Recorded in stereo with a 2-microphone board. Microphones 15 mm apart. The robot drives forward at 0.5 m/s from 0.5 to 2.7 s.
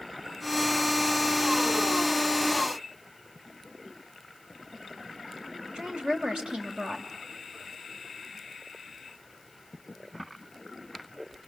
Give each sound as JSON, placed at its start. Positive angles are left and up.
{"t": 5.7, "sound": "a woman speaking", "side_deg": -70, "distance_m": 3.0}